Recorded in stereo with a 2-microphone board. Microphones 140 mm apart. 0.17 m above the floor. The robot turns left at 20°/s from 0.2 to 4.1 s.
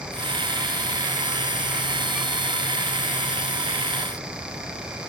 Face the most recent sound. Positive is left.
No sound to turn to.